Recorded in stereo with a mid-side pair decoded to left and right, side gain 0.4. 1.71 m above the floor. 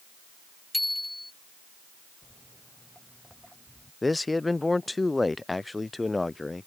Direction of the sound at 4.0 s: 20° left.